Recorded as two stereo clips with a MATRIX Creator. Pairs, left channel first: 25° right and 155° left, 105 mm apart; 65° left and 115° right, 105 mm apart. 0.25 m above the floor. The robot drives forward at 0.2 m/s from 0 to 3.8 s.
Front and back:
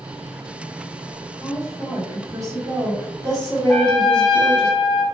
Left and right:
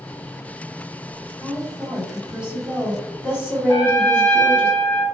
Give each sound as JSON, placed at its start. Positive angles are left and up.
{"t": 1.4, "sound": "a woman speaking", "azimuth_deg": 175, "distance_m": 1.8}
{"t": 3.7, "sound": "a trumpet", "azimuth_deg": 65, "distance_m": 1.5}